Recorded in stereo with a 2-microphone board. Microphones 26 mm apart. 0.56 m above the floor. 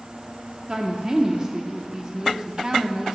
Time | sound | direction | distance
0.7 | a woman speaking | 30° right (ahead or behind) | 0.7 m